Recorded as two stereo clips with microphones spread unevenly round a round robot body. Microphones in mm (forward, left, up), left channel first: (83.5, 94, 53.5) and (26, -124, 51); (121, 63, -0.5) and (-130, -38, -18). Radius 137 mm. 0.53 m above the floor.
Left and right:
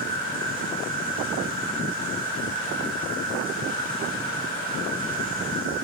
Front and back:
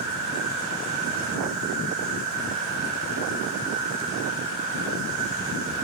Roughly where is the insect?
Behind right.